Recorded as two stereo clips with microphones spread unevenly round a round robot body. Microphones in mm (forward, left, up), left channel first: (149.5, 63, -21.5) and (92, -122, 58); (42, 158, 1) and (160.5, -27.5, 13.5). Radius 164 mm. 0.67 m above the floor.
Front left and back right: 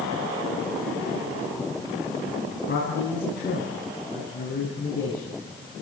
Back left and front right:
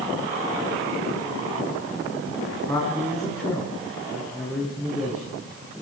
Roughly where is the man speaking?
Ahead left.